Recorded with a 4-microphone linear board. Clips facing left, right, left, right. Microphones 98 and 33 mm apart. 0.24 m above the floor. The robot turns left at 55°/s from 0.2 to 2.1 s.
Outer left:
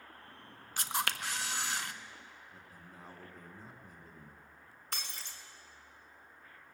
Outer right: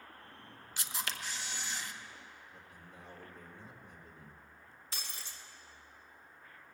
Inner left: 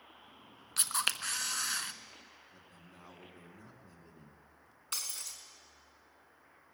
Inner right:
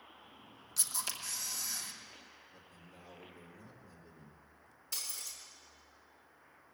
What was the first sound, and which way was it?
A camera shutter, 130° left.